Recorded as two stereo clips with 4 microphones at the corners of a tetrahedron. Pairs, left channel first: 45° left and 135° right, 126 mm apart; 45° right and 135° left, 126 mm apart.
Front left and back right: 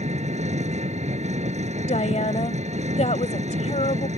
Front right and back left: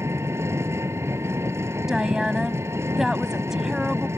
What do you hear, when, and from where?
0.0 s an engine running: 155° right
1.9 s a woman speaking: 50° left